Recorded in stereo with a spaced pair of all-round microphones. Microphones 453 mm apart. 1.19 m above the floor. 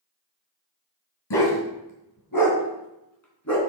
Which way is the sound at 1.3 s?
60° left (ahead or behind).